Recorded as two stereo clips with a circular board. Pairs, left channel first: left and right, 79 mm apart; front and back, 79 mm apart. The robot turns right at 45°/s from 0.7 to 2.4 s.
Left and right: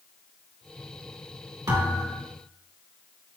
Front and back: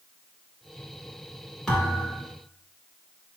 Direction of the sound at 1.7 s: 80° right.